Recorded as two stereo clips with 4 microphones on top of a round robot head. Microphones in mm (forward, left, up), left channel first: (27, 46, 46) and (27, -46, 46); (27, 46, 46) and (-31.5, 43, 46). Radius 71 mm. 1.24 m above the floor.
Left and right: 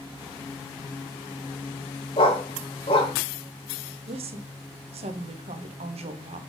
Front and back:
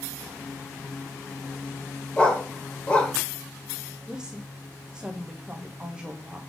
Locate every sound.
2.2 s a dog barking: 70° left, 1.3 m
4.1 s a woman speaking: 95° right, 1.1 m